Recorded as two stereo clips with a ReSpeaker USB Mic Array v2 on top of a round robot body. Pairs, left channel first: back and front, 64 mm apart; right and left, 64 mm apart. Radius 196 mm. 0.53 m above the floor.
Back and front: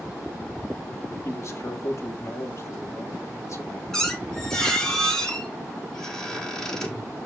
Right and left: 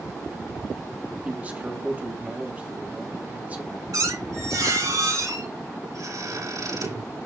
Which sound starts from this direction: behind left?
A man speaking, at 1.2 s.